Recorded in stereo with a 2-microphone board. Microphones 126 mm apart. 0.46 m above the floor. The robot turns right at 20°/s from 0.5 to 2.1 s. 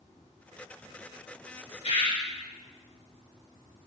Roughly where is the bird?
Left.